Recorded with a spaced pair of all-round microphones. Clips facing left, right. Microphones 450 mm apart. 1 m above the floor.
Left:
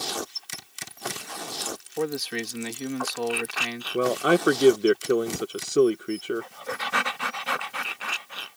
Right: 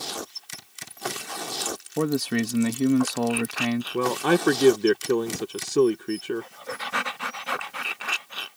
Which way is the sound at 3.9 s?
10° right (ahead or behind).